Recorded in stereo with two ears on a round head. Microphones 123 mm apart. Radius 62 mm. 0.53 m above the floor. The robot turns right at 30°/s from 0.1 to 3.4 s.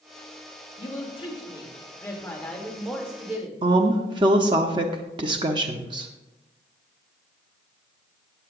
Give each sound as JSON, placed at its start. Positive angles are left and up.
{"t": 0.8, "sound": "a woman speaking", "azimuth_deg": 120, "distance_m": 1.6}
{"t": 3.6, "sound": "a woman speaking", "side_deg": -35, "distance_m": 0.7}